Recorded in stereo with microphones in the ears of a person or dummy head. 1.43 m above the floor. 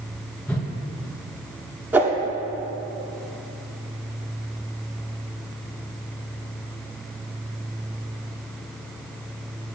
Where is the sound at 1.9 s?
10° right (ahead or behind), 1.0 m.